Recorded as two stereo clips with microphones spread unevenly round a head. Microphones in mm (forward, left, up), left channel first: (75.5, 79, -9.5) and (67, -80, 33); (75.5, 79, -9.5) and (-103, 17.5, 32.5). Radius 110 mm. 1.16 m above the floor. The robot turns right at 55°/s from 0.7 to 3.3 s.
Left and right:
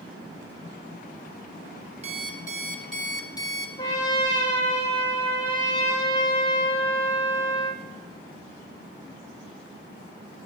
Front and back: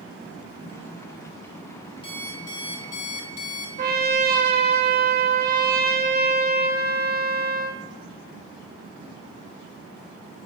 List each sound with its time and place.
2.0 s an alarm clock: 55° right, 1.6 m; by 3.7 s 15° left, 1.6 m
3.8 s a trumpet: 160° left, 1.4 m